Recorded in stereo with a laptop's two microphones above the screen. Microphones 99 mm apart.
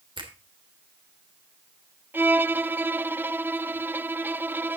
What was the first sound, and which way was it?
A finger snap, 55° right (ahead or behind).